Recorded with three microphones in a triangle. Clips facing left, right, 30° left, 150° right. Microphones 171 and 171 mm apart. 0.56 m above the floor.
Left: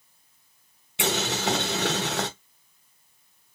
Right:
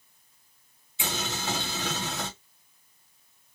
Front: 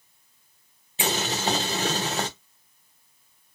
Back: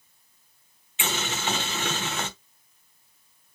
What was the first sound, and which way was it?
Boiling, 80° left.